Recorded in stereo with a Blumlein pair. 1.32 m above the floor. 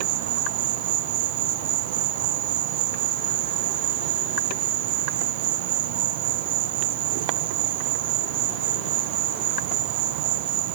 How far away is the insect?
About 1.1 m.